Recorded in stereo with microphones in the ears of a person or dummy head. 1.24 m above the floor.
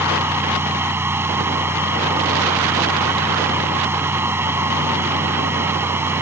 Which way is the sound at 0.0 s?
10° right (ahead or behind).